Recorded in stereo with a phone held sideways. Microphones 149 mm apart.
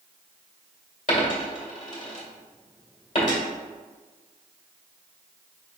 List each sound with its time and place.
1.1 s a dropped coin: 55° left (ahead or behind), 1.6 m